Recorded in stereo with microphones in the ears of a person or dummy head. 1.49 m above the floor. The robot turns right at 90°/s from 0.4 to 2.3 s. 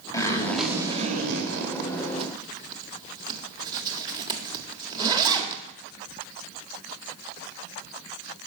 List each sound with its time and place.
0.1 s a zipper: 15° left (ahead or behind), 1.7 m; by 5.6 s 25° right (ahead or behind), 1.7 m